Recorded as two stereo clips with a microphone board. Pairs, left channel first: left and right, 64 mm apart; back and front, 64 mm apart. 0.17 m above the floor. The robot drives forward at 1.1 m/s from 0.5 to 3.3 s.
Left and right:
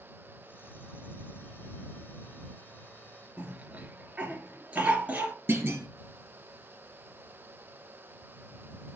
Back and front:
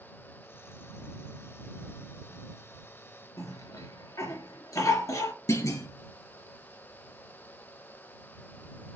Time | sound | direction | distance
3.4 | a cough | 160° right | 3.5 m
5.5 | a clunk | 145° right | 2 m